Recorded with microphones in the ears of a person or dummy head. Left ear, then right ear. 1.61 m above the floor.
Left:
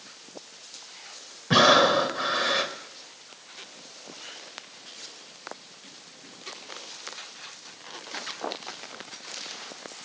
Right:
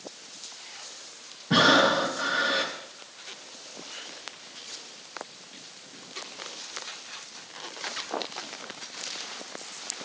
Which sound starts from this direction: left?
Breathing, at 1.5 s.